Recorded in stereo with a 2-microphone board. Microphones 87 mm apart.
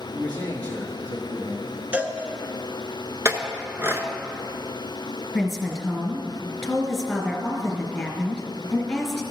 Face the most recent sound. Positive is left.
turn(degrees=0)  # may be behind; listen again after turning